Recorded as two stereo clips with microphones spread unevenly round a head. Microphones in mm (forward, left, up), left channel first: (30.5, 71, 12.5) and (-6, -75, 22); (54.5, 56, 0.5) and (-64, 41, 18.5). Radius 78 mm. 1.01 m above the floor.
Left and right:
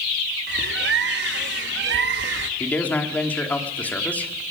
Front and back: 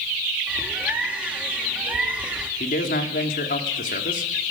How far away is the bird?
About 1.2 m.